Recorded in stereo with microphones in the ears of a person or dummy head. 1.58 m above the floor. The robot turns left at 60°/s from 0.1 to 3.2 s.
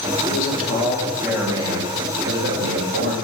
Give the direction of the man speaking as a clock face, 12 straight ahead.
10 o'clock.